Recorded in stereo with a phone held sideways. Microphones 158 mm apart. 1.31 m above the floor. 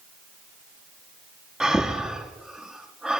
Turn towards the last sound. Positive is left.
turn(degrees=-5)  # may be behind; listen again after turning